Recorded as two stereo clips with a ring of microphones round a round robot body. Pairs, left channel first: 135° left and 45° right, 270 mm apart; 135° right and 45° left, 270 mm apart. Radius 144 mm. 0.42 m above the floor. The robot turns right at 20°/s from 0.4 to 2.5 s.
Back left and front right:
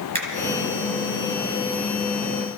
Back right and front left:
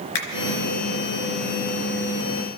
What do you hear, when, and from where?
0.1 s a finger snap: 115° right, 3 m